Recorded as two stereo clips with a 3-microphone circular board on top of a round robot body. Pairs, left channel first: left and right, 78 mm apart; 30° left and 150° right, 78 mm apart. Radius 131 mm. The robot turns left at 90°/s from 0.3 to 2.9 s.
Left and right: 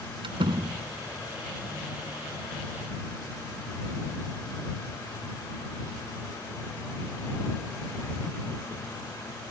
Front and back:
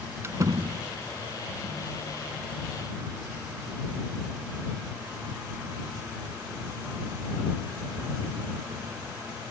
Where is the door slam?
90° right; by 0.8 s 140° right.